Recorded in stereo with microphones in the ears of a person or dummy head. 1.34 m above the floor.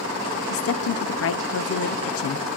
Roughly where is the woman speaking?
Left.